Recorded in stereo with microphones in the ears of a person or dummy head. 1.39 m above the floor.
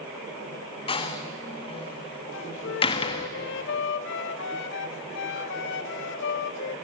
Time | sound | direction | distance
0.9 | a door slam | 25° left (ahead or behind) | 1.4 m
2.3 | a flute | 75° left (ahead or behind) | 1.1 m